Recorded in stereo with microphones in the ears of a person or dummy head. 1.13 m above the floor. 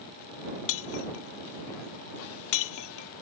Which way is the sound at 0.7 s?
80° left.